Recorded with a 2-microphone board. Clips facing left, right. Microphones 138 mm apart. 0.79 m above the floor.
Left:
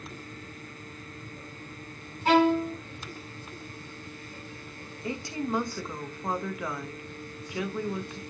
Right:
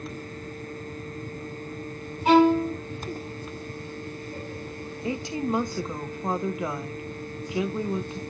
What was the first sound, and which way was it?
A violin, 15° right (ahead or behind).